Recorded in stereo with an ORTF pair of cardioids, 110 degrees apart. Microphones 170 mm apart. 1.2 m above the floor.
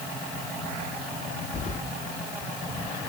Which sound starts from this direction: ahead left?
Keys jangling, at 1.5 s.